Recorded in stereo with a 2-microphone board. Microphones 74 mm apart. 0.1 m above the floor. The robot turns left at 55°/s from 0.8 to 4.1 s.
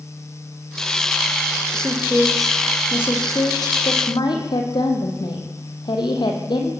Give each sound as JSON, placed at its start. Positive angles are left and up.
{"t": 1.7, "sound": "a woman speaking", "azimuth_deg": -140, "distance_m": 4.0}